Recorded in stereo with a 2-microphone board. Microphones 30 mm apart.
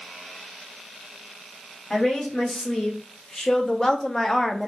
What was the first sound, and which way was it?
A woman speaking, 20° left (ahead or behind).